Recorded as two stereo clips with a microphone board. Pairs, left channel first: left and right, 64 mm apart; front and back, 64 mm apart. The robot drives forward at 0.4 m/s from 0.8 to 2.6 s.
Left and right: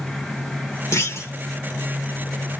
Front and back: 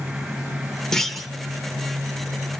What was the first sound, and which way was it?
A clunk, 80° left.